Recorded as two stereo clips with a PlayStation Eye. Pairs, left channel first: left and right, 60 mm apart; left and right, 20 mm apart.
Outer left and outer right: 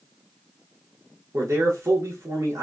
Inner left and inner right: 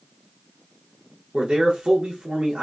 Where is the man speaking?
55° right (ahead or behind), 1.0 m.